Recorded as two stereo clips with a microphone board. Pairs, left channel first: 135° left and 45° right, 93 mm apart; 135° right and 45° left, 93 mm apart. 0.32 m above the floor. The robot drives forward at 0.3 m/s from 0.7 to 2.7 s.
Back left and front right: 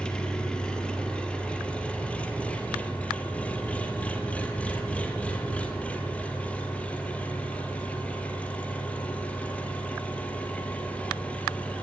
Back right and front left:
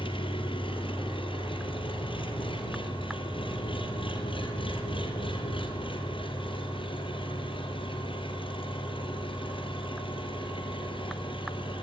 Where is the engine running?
145° right, 4 m; by 11.8 s 150° right, 4.5 m.